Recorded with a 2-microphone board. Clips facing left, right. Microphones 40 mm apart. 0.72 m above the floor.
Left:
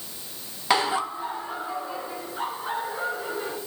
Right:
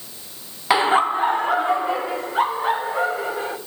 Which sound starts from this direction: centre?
Laughter, at 0.7 s.